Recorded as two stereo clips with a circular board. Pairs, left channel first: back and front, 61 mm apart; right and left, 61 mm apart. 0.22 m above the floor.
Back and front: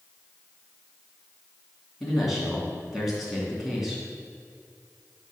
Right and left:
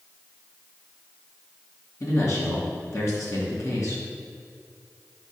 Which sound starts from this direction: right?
A man speaking, at 2.0 s.